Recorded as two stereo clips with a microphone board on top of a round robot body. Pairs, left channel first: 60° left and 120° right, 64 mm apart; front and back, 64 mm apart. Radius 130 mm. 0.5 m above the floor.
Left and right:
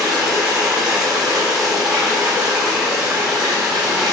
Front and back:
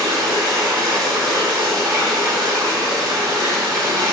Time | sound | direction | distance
0.0 | running water | 165° left | 4.5 m